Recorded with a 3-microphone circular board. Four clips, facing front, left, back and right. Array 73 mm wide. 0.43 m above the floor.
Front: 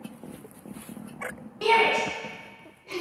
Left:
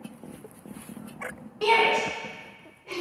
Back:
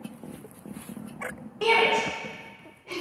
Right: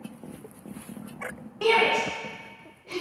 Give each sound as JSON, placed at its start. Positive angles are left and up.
{"t": 1.6, "sound": "a shout", "azimuth_deg": -145, "distance_m": 1.0}